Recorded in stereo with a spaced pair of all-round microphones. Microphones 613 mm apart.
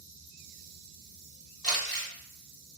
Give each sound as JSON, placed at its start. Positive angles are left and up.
{"t": 1.6, "sound": "crumpling", "side_deg": -35, "distance_m": 0.8}